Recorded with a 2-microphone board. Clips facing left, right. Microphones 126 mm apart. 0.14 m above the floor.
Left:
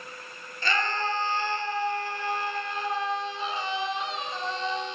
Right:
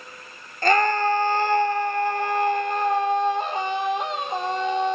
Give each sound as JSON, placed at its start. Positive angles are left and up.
{"t": 0.6, "sound": "a scream", "side_deg": -50, "distance_m": 2.5}